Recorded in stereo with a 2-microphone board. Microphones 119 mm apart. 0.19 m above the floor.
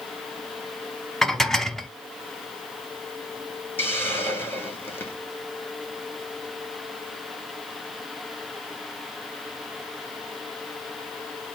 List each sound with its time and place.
1.2 s dishes clattering: 5° left (ahead or behind), 0.7 m
3.8 s a hiss: 20° left (ahead or behind), 1.8 m